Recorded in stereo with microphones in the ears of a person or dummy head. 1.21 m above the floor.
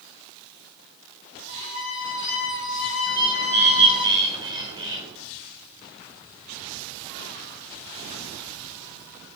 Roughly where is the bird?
Right.